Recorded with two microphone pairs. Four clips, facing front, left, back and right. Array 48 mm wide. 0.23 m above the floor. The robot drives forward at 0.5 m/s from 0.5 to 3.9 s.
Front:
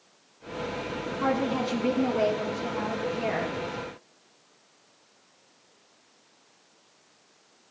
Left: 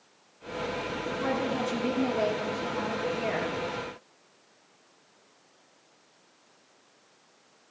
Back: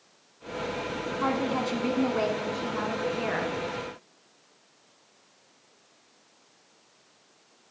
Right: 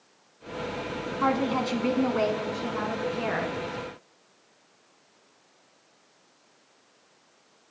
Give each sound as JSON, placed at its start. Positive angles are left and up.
{"t": 1.2, "sound": "a woman speaking", "azimuth_deg": -105, "distance_m": 1.7}